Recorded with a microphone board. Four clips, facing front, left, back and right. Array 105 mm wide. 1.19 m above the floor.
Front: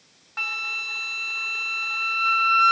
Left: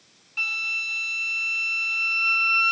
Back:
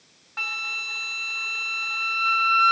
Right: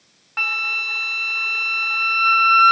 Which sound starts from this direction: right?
A flute, at 0.4 s.